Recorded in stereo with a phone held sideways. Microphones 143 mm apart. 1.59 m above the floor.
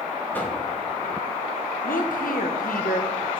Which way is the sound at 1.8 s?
75° left (ahead or behind).